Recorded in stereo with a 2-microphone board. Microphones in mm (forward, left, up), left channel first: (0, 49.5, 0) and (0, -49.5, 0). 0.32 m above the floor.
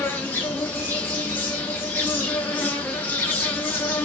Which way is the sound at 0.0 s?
20° left (ahead or behind).